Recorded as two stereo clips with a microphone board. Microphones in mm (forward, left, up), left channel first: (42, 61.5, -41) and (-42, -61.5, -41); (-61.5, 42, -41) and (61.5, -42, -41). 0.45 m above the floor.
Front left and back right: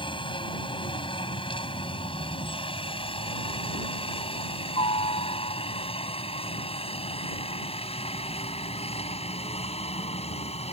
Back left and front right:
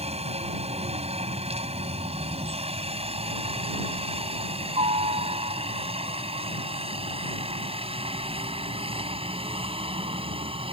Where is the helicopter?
5° left; by 10.7 s 15° left.